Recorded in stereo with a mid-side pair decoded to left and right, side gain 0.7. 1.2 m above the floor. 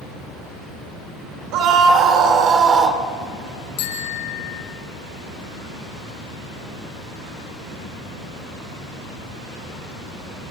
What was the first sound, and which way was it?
A scream, 60° right.